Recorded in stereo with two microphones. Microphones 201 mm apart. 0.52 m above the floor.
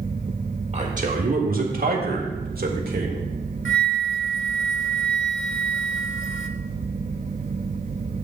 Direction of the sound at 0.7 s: 35° right (ahead or behind).